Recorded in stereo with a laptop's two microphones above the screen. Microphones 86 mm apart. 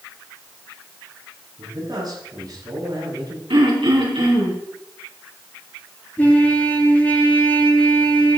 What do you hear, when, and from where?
1.6 s a man speaking: 50° right (ahead or behind), 7 m
3.5 s throat clearing: 75° right (ahead or behind), 3.5 m
6.2 s a trumpet: 20° left (ahead or behind), 6.5 m